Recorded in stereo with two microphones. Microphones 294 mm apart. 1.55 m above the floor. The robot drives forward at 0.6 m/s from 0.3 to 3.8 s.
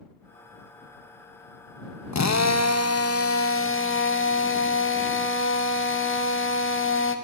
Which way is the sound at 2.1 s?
65° left (ahead or behind).